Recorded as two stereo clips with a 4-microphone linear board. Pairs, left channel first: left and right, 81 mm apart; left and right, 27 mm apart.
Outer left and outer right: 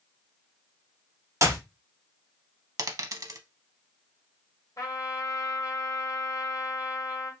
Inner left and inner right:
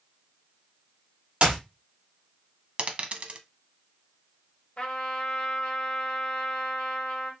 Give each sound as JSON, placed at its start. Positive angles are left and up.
{"t": 1.4, "sound": "a clap", "side_deg": -40, "distance_m": 1.0}
{"t": 2.8, "sound": "a dropped coin", "side_deg": -45, "distance_m": 0.5}
{"t": 4.8, "sound": "a trumpet", "side_deg": 40, "distance_m": 1.0}